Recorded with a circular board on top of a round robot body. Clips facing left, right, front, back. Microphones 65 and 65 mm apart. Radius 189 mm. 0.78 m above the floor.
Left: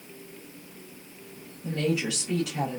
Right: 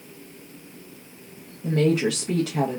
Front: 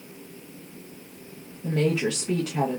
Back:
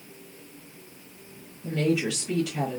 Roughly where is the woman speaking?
Ahead right.